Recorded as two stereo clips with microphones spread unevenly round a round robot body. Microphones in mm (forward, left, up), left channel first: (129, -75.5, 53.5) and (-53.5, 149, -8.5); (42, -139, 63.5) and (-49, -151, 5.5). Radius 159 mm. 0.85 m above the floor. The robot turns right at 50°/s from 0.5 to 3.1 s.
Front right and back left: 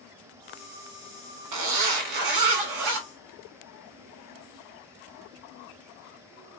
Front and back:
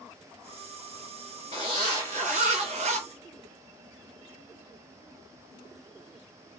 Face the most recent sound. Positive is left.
turn(degrees=-175)